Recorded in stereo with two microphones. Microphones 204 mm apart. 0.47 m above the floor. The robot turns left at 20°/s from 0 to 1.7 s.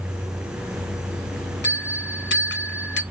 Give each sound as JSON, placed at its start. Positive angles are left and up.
{"t": 1.6, "sound": "a bell", "side_deg": 65, "distance_m": 0.6}